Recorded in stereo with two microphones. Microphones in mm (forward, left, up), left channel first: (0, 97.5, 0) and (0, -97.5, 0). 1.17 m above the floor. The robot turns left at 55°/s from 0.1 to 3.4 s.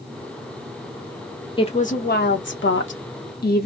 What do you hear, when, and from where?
1.6 s a woman speaking: 155° left, 0.9 m; by 3.7 s 55° left, 0.9 m